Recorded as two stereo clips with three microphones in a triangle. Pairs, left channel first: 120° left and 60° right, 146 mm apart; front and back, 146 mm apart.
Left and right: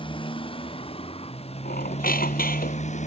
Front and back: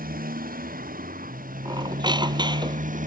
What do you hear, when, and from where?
0.0 s a motorcycle: 175° left; by 3.1 s 155° left
1.6 s a squeak: 120° left